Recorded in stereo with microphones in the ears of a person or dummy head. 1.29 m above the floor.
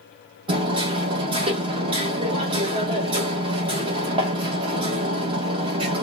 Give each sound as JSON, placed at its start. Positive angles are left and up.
{"t": 0.5, "sound": "hammering", "side_deg": -25, "distance_m": 1.5}